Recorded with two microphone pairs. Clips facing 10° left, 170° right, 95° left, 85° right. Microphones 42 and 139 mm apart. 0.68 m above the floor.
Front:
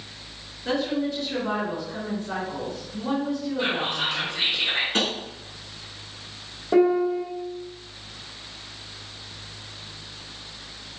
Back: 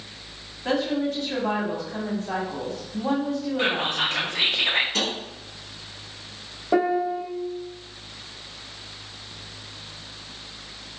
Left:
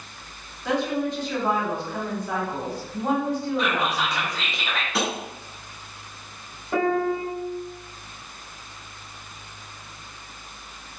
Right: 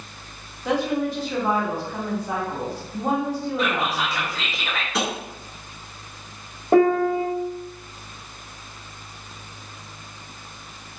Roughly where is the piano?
Right.